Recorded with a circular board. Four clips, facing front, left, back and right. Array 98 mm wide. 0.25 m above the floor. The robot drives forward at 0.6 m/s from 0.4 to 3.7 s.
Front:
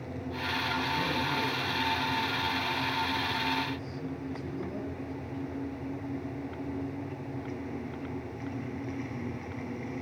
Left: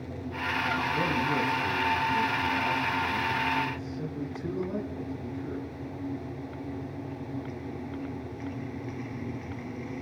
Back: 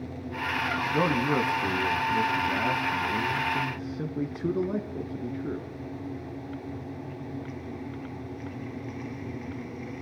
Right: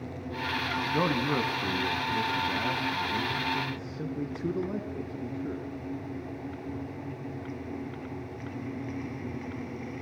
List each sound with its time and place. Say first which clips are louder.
0.9 s a man speaking: even, back 6 dB; 140° right, 1.5 m; by 5.7 s 165° right, 3 m